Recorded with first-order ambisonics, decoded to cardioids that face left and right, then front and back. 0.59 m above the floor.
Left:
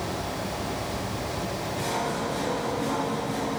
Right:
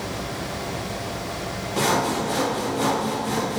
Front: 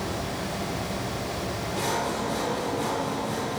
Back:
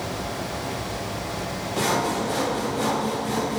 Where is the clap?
No clap in this recording.